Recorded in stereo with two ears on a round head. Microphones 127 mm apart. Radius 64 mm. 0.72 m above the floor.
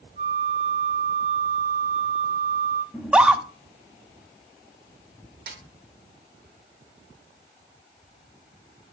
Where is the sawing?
No sawing in this recording.